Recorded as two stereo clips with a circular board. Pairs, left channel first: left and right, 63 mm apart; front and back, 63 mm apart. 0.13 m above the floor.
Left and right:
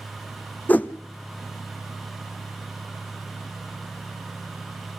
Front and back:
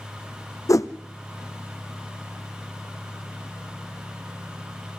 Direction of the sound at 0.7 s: 30° left.